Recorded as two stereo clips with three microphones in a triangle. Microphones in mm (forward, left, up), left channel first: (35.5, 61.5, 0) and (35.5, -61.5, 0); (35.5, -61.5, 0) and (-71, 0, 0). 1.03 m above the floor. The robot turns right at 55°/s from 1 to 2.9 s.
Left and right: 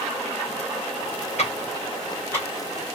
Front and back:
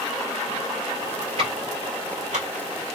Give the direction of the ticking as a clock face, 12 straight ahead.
8 o'clock.